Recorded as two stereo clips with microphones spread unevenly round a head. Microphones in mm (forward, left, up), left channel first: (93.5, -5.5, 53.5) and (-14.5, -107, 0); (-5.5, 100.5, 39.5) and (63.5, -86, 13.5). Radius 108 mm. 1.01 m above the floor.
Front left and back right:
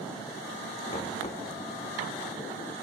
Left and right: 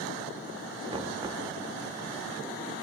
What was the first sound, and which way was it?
Knocking, straight ahead.